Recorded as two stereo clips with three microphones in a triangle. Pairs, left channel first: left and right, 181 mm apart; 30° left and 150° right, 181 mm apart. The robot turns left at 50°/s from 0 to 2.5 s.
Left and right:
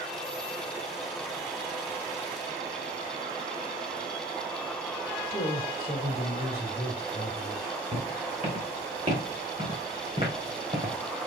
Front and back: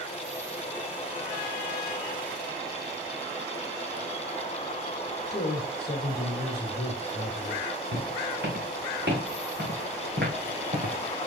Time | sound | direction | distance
5.3 | a man speaking | 45° left | 1.9 m
7.9 | footsteps | 150° right | 5 m